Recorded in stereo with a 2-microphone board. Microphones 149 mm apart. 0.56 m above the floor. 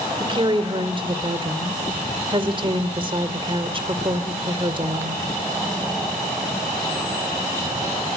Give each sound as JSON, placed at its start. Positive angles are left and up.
{"t": 0.2, "sound": "a woman speaking", "side_deg": -35, "distance_m": 2.0}